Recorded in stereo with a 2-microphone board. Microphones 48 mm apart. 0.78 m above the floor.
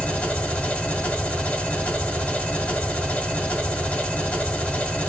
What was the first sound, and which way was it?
An engine running, 25° left (ahead or behind).